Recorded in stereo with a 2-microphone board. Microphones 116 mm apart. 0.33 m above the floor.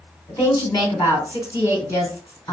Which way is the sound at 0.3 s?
30° left (ahead or behind).